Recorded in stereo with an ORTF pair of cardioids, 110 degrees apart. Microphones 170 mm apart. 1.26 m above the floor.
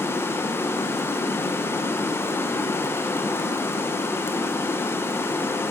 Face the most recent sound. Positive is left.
turn(degrees=15)